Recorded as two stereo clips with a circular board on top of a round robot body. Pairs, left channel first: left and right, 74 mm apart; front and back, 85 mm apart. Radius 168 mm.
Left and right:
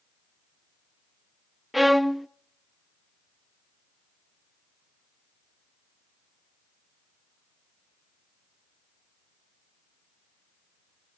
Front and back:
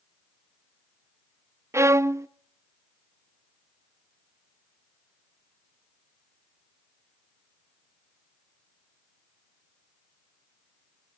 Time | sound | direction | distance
1.7 | a violin | 175° right | 0.6 m